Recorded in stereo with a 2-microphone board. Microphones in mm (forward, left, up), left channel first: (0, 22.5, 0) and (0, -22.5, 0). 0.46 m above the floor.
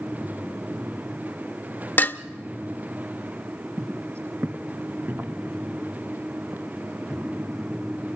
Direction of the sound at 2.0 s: 45° left (ahead or behind).